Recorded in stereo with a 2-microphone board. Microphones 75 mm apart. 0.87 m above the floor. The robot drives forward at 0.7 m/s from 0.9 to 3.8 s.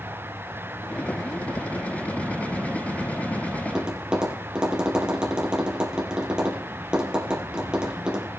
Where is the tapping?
10° right (ahead or behind), 3.5 m.